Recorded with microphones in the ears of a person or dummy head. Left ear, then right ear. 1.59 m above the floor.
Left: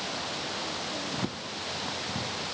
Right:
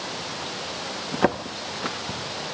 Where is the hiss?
I don't hear a hiss.